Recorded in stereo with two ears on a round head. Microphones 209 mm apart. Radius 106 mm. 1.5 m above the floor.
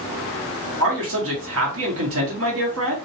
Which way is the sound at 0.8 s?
70° right (ahead or behind).